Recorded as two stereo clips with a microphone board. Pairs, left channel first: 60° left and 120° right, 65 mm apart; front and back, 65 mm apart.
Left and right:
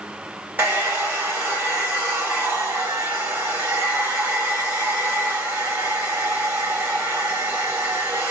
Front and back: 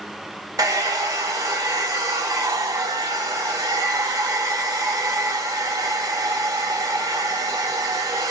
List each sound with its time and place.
0.6 s a hair dryer: 175° left, 2 m